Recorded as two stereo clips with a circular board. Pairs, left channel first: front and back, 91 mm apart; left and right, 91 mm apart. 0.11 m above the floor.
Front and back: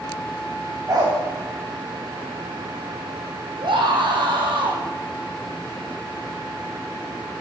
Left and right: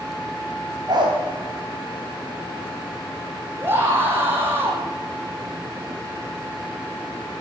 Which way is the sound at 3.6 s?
155° right.